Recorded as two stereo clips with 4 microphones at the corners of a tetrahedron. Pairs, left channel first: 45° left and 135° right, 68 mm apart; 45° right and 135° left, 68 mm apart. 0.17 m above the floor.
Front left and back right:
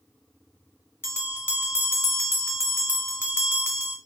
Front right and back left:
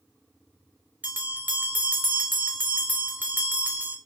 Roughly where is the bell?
Left.